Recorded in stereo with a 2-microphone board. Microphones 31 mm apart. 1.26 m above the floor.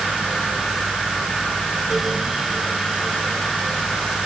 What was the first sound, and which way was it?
Only background noise.